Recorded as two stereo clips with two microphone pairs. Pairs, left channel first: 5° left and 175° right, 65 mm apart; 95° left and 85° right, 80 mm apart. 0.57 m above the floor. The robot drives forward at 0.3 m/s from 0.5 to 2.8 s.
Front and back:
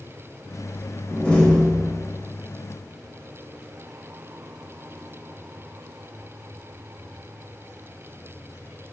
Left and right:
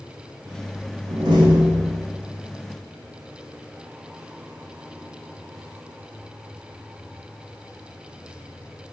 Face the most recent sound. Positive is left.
turn(degrees=-90)